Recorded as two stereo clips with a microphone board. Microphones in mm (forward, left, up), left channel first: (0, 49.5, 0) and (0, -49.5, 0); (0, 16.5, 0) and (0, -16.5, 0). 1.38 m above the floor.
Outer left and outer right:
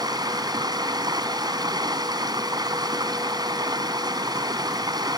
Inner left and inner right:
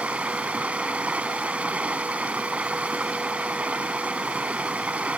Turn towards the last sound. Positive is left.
turn(degrees=-40)  # may be behind; listen again after turning